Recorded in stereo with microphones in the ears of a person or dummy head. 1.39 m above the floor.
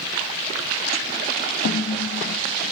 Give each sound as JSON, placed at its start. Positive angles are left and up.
{"t": 1.6, "sound": "a snare drum", "side_deg": 50, "distance_m": 1.3}